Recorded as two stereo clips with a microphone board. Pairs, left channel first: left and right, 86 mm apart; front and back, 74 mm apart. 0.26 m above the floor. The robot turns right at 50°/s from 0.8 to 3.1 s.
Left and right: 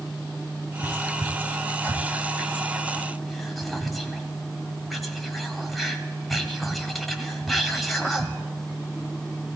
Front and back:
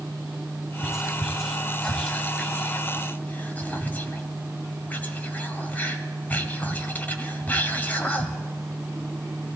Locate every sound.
0.8 s whispering: 115° right, 1.2 m; by 8.4 s straight ahead, 1.2 m